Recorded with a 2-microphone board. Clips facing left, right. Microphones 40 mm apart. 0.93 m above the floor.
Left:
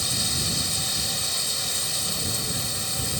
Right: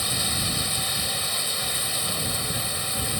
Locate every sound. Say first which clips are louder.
0.0 s running water: right 1 dB; 15° right (ahead or behind)